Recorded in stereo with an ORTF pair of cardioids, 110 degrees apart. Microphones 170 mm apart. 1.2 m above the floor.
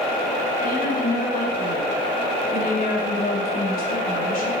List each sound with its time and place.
0.6 s a woman speaking: 55° left, 4.5 m